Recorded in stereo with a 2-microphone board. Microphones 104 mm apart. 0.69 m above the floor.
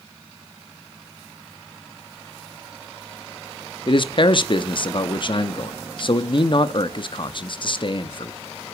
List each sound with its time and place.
3.9 s a man speaking: 50° left (ahead or behind), 0.7 m